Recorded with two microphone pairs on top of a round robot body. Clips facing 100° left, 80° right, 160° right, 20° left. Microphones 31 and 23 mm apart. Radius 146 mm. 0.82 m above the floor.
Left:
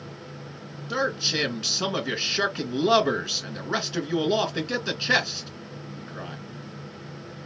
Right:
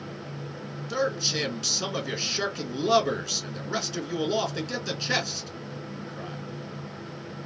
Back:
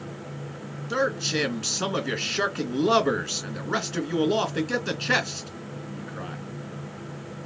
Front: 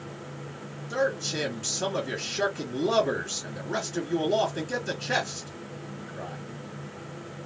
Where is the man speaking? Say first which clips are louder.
Left 2 dB, back 2 dB; 160° left, 1.9 m.